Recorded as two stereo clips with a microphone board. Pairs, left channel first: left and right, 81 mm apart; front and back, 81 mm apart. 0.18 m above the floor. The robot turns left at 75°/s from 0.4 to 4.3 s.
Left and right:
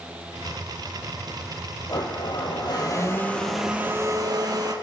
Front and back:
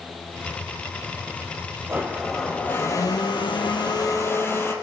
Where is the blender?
125° left, 4 m; by 4.7 s 60° right, 4 m.